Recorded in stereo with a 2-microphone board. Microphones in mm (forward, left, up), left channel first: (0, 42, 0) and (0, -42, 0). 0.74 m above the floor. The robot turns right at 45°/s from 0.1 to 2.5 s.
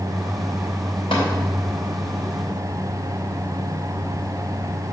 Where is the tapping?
80° left, 3 m; by 1.2 s 75° left (ahead or behind), 3 m.